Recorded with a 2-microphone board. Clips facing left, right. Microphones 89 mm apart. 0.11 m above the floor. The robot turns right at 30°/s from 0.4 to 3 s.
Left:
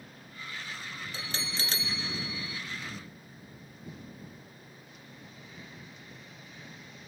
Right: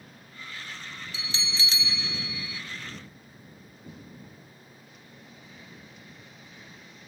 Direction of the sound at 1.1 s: 80° left.